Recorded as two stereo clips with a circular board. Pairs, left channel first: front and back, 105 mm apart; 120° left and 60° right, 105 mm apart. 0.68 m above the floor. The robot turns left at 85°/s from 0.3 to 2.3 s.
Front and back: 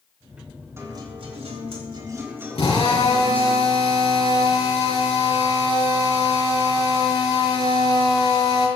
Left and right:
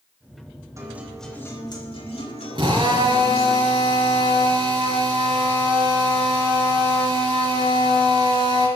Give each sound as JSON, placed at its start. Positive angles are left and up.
{"t": 0.8, "sound": "a guitar", "azimuth_deg": -115, "distance_m": 4.0}
{"t": 2.5, "sound": "a drill", "azimuth_deg": -20, "distance_m": 5.5}